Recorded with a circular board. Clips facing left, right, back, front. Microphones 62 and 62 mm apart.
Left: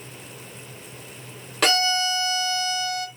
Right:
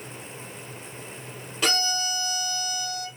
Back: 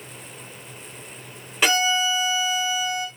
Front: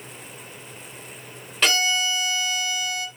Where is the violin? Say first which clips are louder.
Left 5 dB, back 2 dB; 100° left, 1.6 m.